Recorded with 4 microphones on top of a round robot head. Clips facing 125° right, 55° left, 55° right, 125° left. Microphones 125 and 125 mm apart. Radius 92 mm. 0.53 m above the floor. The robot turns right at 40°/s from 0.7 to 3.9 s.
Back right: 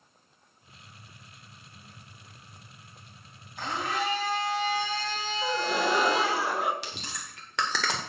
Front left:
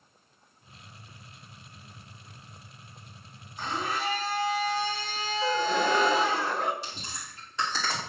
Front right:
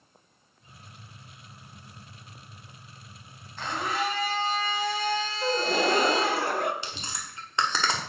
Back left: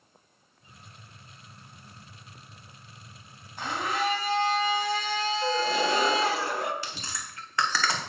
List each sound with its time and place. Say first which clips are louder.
3.6 s a blender: back right 1 dB, even; 155° right, 3 m; by 6.4 s 145° right, 3 m
5.4 s a gasp: front left 2 dB, front right 2 dB; 45° right, 1.1 m
6.8 s chewing: back right 1 dB, even; 120° right, 1.8 m